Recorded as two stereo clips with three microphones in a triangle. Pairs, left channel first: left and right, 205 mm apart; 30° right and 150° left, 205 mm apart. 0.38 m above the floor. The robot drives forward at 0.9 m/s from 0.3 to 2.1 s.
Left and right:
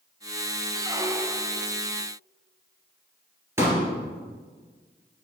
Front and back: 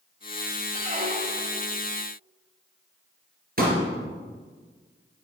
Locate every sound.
0.8 s a squeak: 155° right, 0.6 m; by 1.6 s 170° right, 1.4 m
3.6 s a pop: 165° right, 3 m